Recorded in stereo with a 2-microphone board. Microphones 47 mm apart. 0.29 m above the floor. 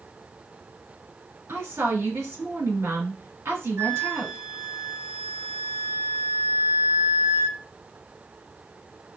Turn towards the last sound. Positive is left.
turn(degrees=-60)  # may be behind; listen again after turning